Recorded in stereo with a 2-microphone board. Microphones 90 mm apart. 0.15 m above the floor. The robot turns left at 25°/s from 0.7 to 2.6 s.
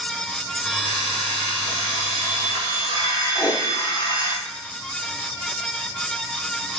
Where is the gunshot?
I don't hear a gunshot.